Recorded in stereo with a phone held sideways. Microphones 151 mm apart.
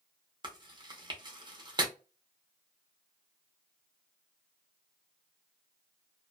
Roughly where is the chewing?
Right.